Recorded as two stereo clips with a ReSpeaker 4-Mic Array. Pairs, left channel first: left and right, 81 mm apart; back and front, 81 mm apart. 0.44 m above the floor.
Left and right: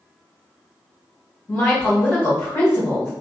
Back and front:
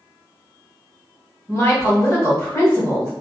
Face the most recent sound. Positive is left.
turn(degrees=140)